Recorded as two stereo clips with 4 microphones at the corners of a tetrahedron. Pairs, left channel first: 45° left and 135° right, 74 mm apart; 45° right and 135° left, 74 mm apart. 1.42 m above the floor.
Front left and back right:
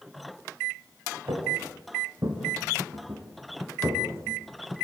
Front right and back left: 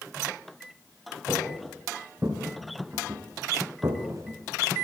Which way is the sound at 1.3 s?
160° right.